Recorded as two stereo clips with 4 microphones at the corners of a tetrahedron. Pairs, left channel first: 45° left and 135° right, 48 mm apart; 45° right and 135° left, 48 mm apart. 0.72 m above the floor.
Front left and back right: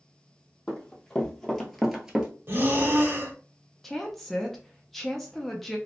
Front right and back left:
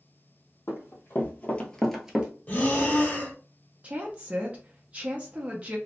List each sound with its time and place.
0.7 s running footsteps: 20° right, 1.4 m; by 2.3 s 175° left, 0.7 m
2.5 s breathing: 100° right, 0.8 m
3.8 s a woman speaking: 130° left, 0.5 m